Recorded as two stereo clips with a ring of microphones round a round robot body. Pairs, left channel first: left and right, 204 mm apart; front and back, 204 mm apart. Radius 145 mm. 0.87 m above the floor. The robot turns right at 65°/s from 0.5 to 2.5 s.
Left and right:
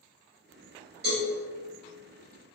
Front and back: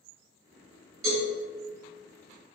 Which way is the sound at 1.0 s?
145° right.